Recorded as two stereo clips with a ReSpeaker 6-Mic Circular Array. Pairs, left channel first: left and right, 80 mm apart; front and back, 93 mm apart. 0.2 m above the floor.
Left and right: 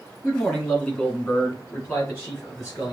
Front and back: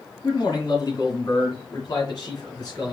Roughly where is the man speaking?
Ahead.